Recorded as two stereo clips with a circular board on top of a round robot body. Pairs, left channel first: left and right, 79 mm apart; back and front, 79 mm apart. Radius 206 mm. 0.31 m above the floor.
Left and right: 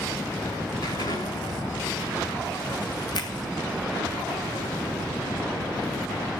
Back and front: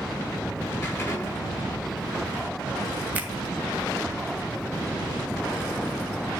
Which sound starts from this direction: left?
A finger snap, at 3.1 s.